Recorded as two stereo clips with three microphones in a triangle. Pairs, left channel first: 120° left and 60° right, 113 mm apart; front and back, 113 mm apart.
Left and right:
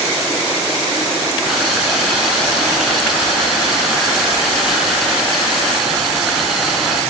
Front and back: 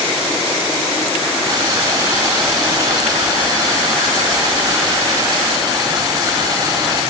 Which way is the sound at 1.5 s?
145° right.